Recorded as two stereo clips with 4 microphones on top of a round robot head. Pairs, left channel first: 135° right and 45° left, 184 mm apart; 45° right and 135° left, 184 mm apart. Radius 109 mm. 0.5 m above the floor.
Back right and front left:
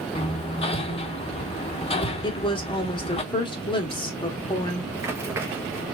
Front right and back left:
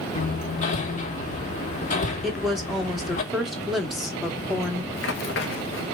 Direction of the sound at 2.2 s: 135° right.